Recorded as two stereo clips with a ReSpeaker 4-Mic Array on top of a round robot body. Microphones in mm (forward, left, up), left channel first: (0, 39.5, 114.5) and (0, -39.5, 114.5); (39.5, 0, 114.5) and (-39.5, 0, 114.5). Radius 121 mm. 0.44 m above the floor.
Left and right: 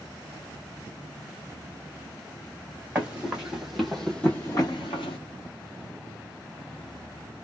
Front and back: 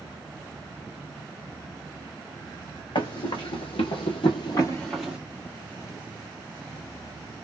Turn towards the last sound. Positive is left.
turn(degrees=110)